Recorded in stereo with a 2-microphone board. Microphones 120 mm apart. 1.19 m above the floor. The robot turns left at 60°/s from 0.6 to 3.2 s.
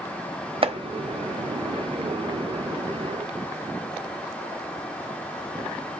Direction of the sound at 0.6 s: 50° right (ahead or behind).